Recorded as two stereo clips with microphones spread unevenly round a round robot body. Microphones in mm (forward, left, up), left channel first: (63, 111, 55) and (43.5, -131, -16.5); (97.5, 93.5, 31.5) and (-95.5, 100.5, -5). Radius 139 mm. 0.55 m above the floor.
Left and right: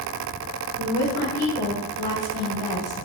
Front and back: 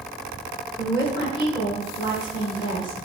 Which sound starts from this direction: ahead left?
A woman speaking, at 0.8 s.